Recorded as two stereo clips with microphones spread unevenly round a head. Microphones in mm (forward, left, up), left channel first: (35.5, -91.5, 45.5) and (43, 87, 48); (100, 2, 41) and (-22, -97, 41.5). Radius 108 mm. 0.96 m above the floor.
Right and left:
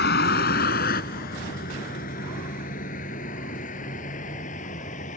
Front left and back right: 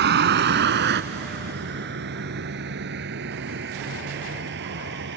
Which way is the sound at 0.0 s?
135° right.